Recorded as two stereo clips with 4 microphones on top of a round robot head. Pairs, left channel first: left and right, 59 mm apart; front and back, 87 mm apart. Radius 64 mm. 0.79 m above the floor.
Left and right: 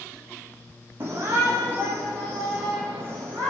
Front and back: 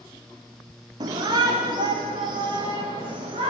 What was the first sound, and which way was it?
A shout, 145° right.